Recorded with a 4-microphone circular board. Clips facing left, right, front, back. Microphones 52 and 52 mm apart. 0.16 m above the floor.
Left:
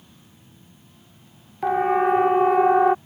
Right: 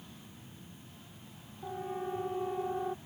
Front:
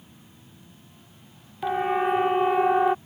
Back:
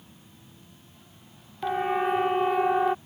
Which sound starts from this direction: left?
A siren, at 1.6 s.